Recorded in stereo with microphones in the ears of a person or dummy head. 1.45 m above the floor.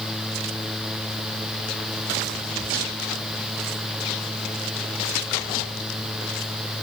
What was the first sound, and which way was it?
Only background noise.